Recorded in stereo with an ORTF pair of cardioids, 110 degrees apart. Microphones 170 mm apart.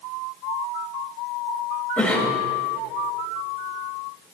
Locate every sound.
2.0 s a cough: 5° left, 6.5 m